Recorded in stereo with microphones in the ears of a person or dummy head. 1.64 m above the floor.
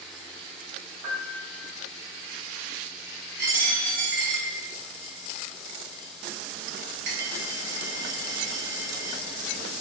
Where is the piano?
60° right (ahead or behind), 3 m.